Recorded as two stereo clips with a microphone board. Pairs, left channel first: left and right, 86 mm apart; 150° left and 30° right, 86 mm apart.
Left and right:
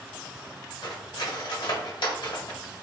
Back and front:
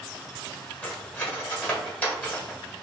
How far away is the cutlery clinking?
About 1.1 m.